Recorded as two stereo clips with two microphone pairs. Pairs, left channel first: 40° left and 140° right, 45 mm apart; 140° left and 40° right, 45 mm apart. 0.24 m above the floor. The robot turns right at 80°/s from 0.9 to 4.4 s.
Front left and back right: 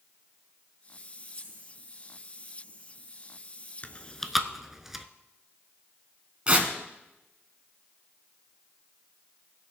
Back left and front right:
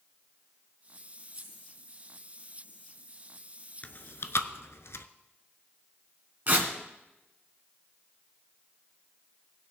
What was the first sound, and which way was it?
Keys jangling, 145° right.